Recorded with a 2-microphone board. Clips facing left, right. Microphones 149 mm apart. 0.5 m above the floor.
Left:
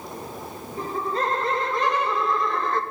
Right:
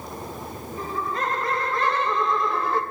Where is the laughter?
40° left (ahead or behind), 2 m; by 2.8 s 15° right (ahead or behind), 1.5 m.